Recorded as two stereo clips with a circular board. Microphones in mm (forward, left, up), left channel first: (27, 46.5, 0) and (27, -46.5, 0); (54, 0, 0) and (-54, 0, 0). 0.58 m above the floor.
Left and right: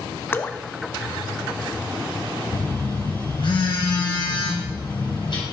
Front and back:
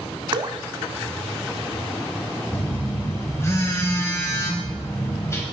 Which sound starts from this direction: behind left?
Dripping, at 0.3 s.